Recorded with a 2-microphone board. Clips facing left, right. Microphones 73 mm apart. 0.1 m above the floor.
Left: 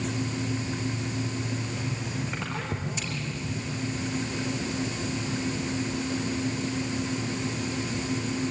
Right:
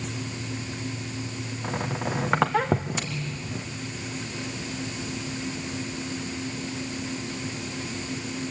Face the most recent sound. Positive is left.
turn(degrees=-65)  # may be behind; listen again after turning